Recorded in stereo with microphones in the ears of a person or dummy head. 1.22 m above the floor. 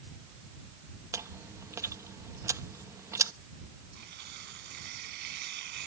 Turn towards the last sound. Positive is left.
turn(degrees=-55)  # may be behind; listen again after turning